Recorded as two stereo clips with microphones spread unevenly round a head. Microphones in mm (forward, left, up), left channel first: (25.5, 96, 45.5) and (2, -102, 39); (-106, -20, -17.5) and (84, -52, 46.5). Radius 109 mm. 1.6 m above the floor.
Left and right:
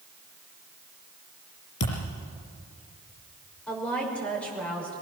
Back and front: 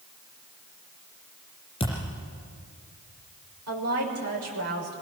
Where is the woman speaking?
Straight ahead, 6 m.